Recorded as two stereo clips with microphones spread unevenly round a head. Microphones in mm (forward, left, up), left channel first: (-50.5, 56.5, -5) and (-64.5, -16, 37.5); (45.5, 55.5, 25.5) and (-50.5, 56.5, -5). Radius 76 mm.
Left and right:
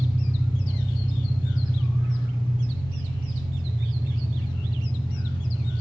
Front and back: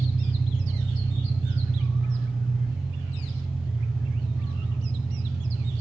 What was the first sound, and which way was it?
An engine running, 95° left.